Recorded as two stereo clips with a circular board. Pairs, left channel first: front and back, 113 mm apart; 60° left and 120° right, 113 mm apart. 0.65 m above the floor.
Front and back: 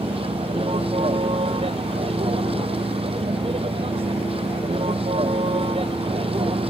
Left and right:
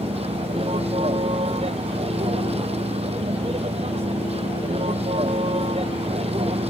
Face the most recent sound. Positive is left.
turn(degrees=-150)